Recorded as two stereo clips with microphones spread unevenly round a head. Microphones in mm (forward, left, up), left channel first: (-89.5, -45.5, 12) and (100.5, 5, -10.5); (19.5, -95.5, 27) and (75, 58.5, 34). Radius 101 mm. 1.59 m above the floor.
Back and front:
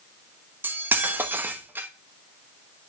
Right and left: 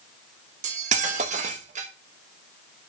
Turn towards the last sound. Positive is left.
turn(degrees=100)